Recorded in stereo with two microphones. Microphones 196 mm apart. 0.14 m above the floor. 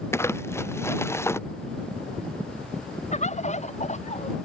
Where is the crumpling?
15° left (ahead or behind).